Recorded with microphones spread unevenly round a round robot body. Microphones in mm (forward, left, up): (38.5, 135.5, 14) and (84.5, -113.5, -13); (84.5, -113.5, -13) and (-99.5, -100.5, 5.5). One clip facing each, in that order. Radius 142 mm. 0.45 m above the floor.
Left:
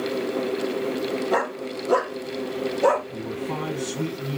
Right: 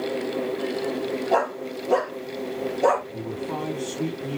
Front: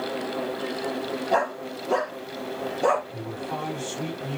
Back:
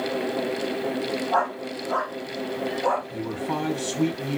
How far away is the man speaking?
About 4.5 m.